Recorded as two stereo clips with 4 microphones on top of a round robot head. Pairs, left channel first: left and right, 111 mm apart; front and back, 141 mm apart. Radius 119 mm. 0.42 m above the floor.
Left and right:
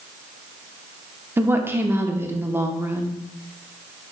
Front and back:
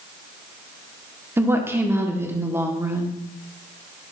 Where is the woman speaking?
130° right, 0.9 m.